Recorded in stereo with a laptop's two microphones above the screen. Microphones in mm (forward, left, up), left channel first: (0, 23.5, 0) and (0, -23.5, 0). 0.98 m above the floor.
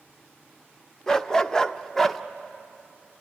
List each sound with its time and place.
1.1 s a dog barking: 15° left (ahead or behind), 0.8 m; by 2.2 s 5° left (ahead or behind), 0.6 m